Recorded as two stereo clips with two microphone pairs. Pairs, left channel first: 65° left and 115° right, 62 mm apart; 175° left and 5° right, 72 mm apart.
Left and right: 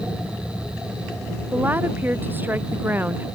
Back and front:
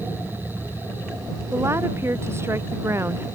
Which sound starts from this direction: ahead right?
A woman speaking, at 1.5 s.